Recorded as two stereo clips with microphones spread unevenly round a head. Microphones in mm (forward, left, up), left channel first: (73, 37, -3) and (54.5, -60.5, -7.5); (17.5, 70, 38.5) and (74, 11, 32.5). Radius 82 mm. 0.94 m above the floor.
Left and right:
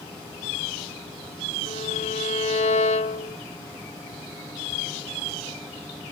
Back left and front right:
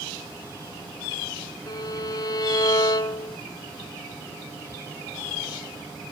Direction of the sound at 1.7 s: 95° left.